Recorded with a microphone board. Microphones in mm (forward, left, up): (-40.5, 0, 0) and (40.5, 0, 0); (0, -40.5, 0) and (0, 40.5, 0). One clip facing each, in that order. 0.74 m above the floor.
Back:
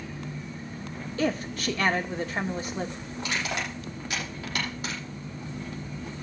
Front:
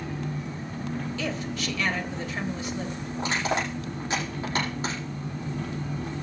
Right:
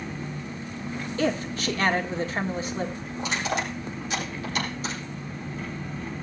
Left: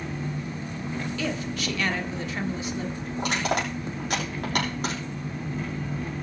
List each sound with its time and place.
0.0 s an engine running: 10° left, 4 m
1.2 s a woman speaking: 140° right, 1.7 m
3.2 s crushing: 60° left, 6.5 m